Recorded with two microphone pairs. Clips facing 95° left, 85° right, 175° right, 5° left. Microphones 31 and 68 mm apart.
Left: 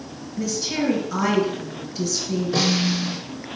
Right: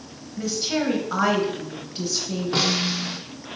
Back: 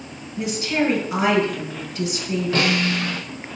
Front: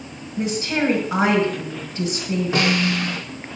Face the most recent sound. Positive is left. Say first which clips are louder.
# left 1 dB, front 1 dB
turn(degrees=-60)